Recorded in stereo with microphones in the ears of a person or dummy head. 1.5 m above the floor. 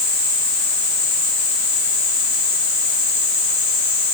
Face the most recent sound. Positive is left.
No sound to turn to.